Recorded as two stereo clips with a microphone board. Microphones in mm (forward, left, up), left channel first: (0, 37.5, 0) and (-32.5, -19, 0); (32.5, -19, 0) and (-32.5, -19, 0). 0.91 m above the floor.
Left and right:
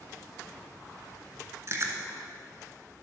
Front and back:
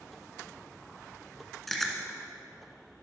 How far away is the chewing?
About 1.4 m.